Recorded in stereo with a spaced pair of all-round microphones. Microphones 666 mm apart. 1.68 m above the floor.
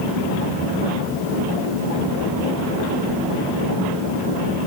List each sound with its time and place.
Only background noise.